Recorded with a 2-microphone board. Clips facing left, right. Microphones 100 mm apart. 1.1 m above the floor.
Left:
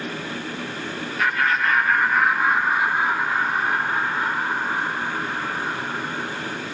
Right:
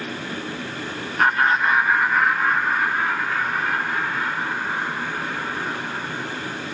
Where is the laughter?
45° right (ahead or behind), 1.3 m; by 6.5 s 35° left (ahead or behind), 7 m.